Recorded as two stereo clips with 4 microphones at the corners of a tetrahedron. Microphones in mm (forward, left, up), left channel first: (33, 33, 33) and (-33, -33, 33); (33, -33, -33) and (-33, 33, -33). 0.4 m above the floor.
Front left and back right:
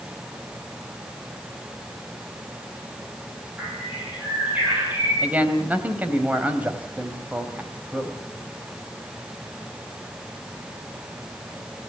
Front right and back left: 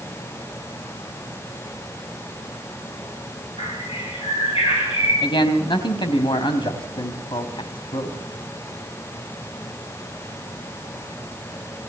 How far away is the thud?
I don't hear a thud.